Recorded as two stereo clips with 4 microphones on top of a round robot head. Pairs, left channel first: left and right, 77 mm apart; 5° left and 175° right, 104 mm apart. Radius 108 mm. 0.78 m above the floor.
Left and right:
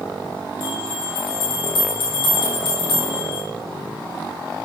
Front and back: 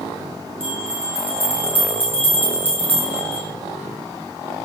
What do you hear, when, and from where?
0.6 s a bell: 110° left, 4 m